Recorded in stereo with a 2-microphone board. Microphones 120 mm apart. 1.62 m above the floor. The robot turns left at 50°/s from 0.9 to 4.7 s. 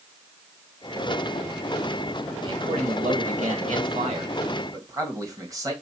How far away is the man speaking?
About 1.9 m.